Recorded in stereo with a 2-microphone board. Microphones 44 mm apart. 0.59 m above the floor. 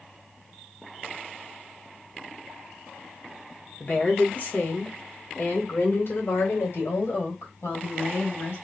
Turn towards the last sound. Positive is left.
turn(degrees=75)  # may be behind; listen again after turning